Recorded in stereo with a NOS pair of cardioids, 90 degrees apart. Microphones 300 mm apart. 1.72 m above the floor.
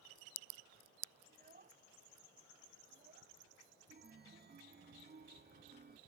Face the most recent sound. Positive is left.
turn(degrees=-35)